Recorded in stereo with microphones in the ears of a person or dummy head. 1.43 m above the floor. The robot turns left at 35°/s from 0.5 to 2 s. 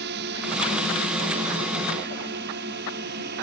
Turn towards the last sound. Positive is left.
turn(degrees=-55)  # may be behind; listen again after turning